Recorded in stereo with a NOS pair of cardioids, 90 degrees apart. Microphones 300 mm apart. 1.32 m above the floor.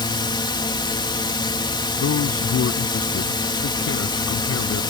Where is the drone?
15° left.